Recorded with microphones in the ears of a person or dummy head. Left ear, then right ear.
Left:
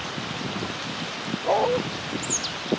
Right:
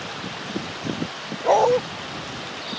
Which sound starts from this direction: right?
A dog barking, at 1.4 s.